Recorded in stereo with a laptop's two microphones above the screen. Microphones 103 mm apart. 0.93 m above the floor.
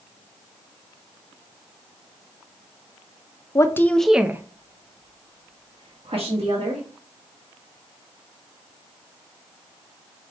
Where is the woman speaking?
30° left (ahead or behind), 0.6 m; by 6.8 s 75° right (ahead or behind), 1.8 m.